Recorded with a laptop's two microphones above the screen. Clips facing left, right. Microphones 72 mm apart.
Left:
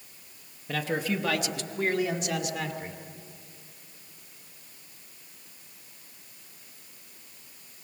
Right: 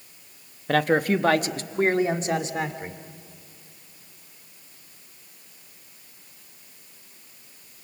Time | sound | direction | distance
0.7 | a man speaking | 65° right (ahead or behind) | 1.1 m